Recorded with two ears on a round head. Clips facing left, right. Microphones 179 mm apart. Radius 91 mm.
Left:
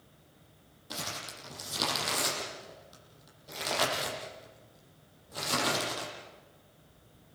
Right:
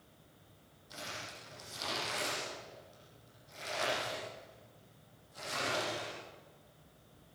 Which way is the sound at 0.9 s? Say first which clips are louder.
Left 5 dB; 80° left.